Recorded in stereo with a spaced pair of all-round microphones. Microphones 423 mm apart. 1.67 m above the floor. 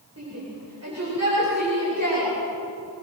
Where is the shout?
35° right (ahead or behind), 8.5 m; by 2.3 s 40° right (ahead or behind), 8.5 m.